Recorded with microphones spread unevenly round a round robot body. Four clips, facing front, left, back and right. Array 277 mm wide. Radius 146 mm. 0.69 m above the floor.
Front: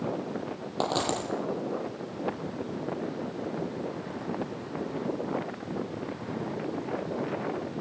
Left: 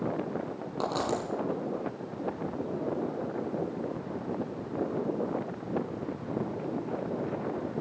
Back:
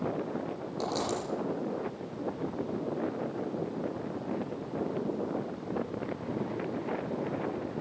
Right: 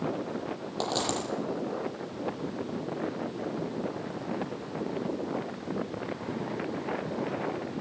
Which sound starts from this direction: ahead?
A dropped coin, at 0.8 s.